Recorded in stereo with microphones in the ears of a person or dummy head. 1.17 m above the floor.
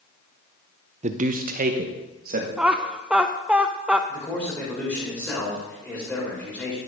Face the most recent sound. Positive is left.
turn(degrees=10)  # may be behind; listen again after turning